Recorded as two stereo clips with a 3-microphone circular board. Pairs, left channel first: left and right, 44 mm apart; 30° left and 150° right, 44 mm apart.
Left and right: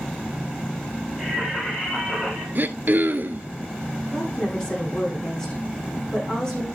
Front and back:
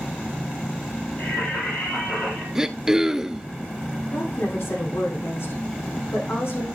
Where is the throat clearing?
75° right, 0.7 m.